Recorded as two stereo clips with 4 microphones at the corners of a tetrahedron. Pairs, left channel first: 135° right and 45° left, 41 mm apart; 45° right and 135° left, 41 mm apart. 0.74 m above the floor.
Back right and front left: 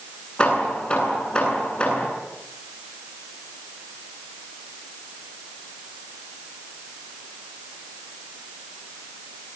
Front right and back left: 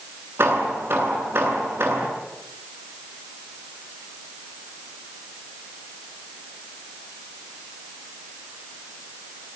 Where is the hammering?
160° left, 9 m.